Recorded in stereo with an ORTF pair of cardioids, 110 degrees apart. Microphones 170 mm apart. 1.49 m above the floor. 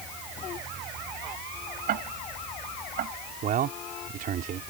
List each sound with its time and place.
1.9 s ticking: 60° right
3.4 s a man speaking: 55° right